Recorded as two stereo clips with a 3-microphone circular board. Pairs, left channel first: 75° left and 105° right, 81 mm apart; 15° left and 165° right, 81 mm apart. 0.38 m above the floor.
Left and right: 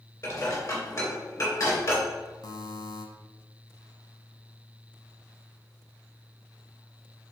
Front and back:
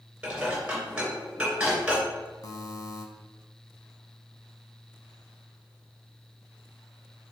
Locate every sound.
0.2 s dishes clattering: 120° left, 3 m
2.4 s a buzzer: 50° left, 0.9 m